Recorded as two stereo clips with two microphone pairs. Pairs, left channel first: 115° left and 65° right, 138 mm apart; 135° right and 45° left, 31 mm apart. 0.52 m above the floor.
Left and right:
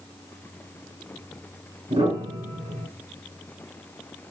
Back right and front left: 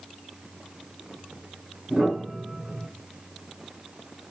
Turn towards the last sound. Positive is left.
turn(degrees=-25)